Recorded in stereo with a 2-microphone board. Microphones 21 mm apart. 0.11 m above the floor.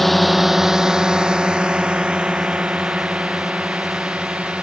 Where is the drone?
5° left (ahead or behind); by 4.6 s 70° right (ahead or behind).